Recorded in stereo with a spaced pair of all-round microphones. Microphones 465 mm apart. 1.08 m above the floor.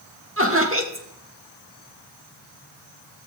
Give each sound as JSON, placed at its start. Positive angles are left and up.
{"t": 0.4, "sound": "laughter", "side_deg": -25, "distance_m": 1.6}